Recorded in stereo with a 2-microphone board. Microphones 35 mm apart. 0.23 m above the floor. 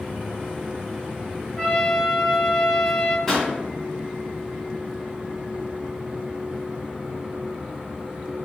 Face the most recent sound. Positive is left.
turn(degrees=5)  # may be behind; listen again after turning